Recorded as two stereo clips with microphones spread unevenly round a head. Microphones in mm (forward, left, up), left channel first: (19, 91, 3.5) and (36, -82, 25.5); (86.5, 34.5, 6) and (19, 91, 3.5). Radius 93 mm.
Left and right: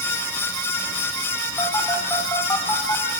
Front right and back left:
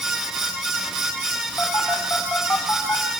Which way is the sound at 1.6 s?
25° left.